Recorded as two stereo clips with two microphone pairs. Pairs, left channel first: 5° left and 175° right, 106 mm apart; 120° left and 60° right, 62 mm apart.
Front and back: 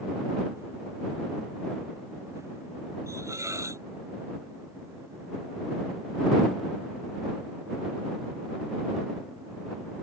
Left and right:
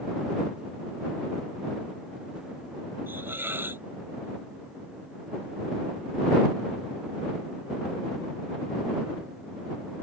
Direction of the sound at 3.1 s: 115° right.